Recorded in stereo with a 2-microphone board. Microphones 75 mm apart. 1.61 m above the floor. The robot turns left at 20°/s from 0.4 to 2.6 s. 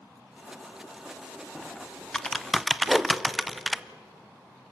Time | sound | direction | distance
1.6 | typing on a keyboard | 10° left (ahead or behind) | 0.6 m
2.9 | a whoosh | centre (ahead or behind) | 0.7 m